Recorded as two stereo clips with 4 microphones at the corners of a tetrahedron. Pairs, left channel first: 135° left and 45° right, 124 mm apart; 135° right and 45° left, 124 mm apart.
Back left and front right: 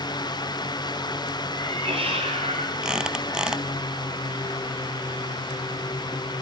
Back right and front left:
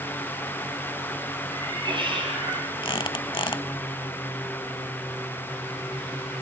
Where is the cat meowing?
10° right, 6 m; by 2.7 s straight ahead, 5 m.